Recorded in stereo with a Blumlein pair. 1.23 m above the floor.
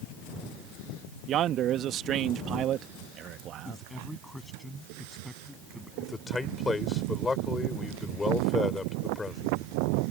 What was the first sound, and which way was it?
A man speaking, 30° right.